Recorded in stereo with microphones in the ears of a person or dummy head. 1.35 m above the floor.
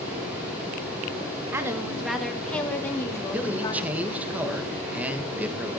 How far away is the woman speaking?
About 2.5 m.